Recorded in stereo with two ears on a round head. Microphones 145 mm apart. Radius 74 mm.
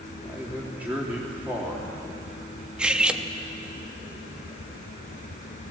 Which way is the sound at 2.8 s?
5° right (ahead or behind).